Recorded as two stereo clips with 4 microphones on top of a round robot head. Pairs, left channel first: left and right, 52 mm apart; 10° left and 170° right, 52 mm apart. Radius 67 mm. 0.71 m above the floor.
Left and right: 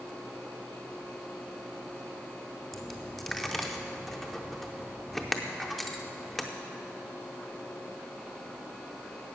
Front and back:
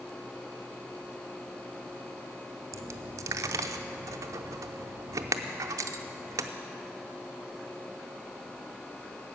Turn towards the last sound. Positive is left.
turn(degrees=180)